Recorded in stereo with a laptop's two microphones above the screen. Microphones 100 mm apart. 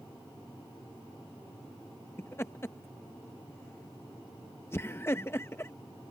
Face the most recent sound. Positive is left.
turn(degrees=25)  # may be behind; listen again after turning